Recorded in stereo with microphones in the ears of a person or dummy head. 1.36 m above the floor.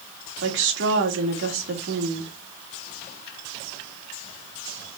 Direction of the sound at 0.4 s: 80° right.